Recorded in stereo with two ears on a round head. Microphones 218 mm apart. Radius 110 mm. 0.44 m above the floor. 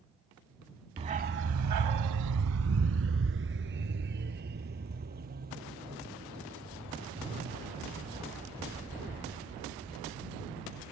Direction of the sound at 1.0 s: 20° right (ahead or behind).